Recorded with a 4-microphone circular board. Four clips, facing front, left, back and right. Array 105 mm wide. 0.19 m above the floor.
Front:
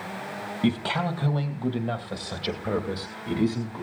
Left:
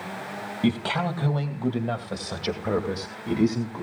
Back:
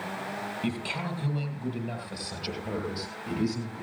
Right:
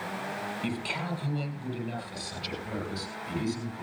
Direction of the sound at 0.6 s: 45° left.